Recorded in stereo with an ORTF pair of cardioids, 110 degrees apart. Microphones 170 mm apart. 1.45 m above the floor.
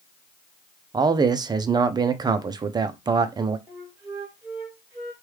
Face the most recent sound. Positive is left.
turn(degrees=-15)